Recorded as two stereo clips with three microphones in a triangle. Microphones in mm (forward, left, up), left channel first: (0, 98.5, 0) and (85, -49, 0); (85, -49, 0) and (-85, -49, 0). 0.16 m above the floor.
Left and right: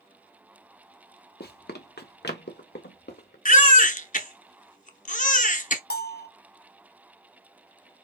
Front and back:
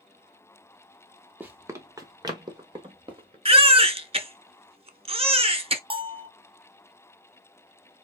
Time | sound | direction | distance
1.4 | running footsteps | 100° left | 1.0 m
3.5 | a baby crying | 140° left | 0.7 m
5.9 | a bell | 125° left | 0.6 m